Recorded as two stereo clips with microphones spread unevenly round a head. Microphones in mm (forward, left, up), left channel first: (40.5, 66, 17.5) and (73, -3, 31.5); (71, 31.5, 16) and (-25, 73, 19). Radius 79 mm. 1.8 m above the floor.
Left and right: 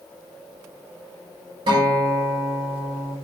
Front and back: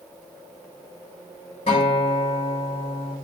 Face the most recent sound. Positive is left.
turn(degrees=-80)